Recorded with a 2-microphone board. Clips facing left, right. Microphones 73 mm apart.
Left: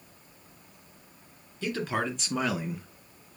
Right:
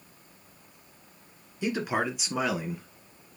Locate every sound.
1.6 s a man speaking: 15° right (ahead or behind), 3 m; by 2.9 s 5° left (ahead or behind), 2 m